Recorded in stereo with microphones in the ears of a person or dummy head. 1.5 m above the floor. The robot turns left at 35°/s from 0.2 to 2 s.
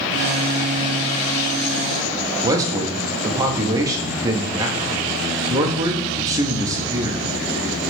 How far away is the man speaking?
About 0.8 m.